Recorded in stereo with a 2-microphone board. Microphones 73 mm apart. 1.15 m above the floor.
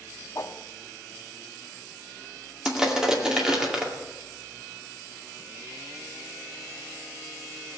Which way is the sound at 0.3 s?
45° left (ahead or behind).